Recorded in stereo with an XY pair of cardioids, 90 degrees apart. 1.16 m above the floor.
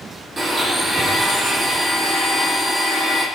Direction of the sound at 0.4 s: 40° right.